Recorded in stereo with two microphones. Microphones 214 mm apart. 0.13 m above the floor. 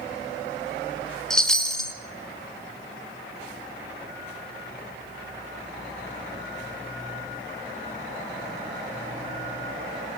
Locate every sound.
1.3 s a chime: 5° left (ahead or behind), 1.9 m